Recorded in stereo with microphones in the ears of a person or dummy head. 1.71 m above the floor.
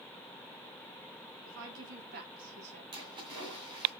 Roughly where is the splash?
Right.